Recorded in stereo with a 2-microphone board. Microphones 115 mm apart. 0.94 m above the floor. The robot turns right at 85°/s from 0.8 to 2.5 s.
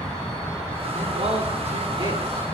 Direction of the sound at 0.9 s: 150° right.